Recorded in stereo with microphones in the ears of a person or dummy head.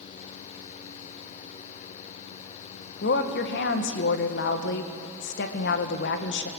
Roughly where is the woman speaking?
Left.